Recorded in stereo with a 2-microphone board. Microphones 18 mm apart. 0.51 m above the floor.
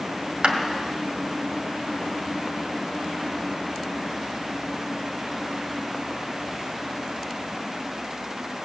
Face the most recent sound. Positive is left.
turn(degrees=-70)  # may be behind; listen again after turning